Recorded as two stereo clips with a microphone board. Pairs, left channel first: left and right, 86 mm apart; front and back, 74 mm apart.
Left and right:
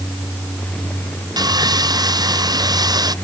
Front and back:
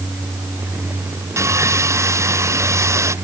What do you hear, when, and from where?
1.4 s sawing: 130° right